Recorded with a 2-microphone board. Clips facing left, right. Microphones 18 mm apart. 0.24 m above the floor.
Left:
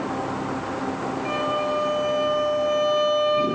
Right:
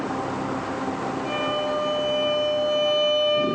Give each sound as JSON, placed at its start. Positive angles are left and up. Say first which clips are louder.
{"t": 1.2, "sound": "a violin", "louder": "left 2 dB", "side_deg": 40, "distance_m": 5.0}